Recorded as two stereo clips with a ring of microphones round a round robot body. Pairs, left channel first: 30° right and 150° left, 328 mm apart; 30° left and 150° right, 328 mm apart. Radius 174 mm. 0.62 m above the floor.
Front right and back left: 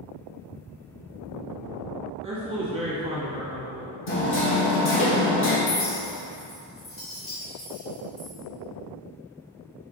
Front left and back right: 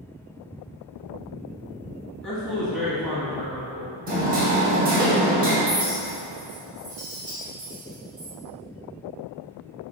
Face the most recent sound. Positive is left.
turn(degrees=-80)